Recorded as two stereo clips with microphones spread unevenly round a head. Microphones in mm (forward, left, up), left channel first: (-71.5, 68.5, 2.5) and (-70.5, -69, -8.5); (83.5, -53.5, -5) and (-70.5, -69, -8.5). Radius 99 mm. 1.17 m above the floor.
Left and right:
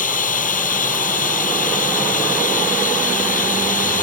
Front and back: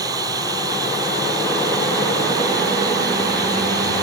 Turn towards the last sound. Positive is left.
turn(degrees=110)